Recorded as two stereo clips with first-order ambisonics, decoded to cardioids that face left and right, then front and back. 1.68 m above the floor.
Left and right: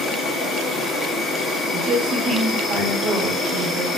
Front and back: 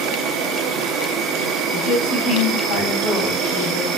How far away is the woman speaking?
About 3 m.